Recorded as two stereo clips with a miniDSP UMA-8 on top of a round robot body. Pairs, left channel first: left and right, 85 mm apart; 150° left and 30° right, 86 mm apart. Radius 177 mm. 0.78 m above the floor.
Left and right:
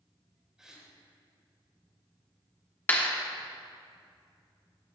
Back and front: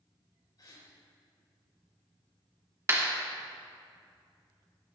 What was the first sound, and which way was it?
A gasp, 170° right.